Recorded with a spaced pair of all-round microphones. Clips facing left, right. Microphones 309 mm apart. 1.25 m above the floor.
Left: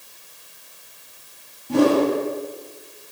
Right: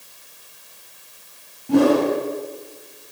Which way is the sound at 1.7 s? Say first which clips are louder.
Right 1 dB; 70° right (ahead or behind).